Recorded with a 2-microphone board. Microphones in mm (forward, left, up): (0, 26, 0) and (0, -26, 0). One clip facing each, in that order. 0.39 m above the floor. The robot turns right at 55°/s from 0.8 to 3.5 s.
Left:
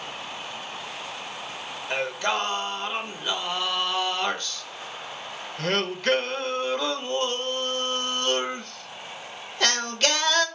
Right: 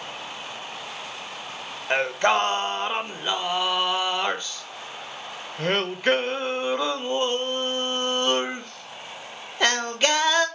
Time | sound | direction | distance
1.9 | singing | 115° right | 0.6 m